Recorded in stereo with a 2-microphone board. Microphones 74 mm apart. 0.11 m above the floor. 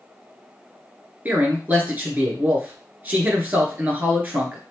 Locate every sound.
1.2 s a man speaking: 20° right (ahead or behind), 1.5 m